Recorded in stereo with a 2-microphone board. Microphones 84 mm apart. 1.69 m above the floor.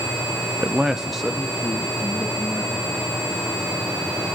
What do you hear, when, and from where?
0.6 s a man speaking: 30° right (ahead or behind), 0.5 m; by 3.1 s 10° left (ahead or behind), 4.5 m